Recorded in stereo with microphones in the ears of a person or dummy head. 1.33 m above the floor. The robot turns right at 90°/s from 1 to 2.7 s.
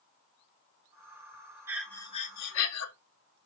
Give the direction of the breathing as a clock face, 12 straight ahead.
12 o'clock.